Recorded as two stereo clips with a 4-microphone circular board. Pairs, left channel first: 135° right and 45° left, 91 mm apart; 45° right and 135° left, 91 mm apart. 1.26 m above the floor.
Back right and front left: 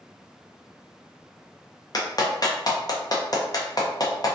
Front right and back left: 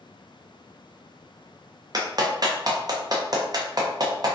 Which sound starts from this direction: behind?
A clap, at 1.9 s.